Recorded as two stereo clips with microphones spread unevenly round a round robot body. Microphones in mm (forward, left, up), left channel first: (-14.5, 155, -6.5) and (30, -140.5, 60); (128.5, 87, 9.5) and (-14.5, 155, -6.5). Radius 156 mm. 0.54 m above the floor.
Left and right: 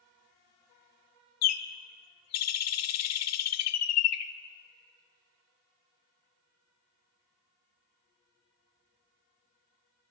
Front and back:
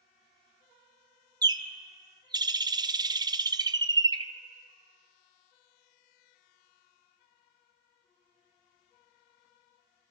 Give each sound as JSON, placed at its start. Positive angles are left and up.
{"t": 1.4, "sound": "a bird", "azimuth_deg": 95, "distance_m": 0.9}